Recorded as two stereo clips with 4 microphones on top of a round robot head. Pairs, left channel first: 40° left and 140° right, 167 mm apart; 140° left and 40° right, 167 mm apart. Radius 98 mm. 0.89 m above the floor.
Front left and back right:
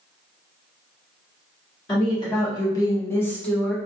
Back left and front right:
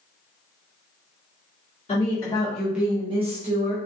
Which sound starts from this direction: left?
A woman speaking, at 1.9 s.